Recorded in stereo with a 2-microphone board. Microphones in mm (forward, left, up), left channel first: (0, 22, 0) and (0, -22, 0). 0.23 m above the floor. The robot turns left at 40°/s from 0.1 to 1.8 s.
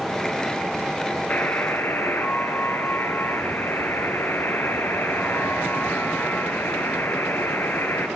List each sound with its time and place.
1.3 s a buzzer: 35° left (ahead or behind), 3 m; by 8.1 s 55° left (ahead or behind), 3 m